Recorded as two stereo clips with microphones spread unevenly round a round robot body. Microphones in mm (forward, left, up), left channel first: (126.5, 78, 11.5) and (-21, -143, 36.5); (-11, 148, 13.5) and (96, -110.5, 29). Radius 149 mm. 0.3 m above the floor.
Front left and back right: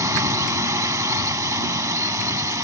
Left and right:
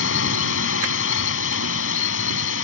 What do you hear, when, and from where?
0.0 s a drone: 155° left